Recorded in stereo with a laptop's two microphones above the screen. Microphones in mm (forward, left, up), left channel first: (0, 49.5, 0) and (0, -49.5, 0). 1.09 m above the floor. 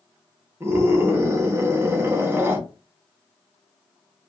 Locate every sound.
0.6 s a scream: 25° right (ahead or behind), 0.8 m